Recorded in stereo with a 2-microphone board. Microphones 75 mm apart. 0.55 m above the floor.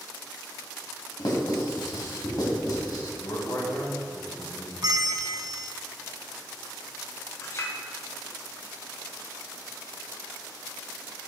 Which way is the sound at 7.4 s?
40° left (ahead or behind).